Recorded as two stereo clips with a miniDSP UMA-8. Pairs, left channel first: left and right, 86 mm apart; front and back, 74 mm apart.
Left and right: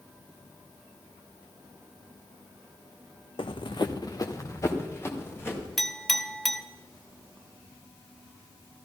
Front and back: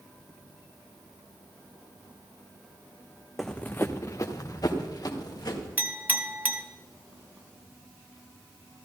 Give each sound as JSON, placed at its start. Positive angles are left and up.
{"t": 3.4, "sound": "running footsteps", "azimuth_deg": 90, "distance_m": 0.8}
{"t": 5.8, "sound": "a clink", "azimuth_deg": 175, "distance_m": 0.9}